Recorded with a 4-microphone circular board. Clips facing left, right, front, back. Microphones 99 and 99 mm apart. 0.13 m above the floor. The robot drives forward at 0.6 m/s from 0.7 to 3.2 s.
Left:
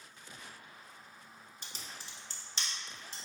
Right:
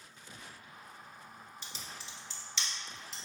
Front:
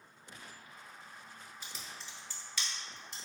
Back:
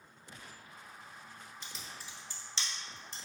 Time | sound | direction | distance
1.6 | typing on a keyboard | 80° left | 0.9 m